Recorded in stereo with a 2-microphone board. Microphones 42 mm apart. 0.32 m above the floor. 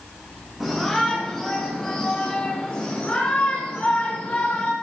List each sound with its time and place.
0.6 s a shout: 5° right (ahead or behind), 3.5 m; by 4.7 s 50° left (ahead or behind), 5.5 m